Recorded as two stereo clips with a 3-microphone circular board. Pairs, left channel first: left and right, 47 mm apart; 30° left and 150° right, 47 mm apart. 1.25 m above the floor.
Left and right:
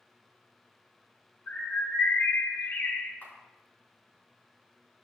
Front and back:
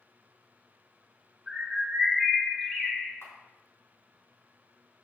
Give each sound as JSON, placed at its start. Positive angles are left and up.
{"t": 1.5, "sound": "a bird", "azimuth_deg": 110, "distance_m": 1.3}
{"t": 3.2, "sound": "a camera shutter", "azimuth_deg": 45, "distance_m": 4.5}